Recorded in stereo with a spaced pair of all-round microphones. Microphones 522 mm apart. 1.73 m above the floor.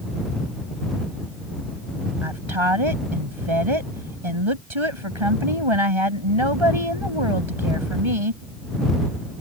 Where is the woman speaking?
60° right (ahead or behind).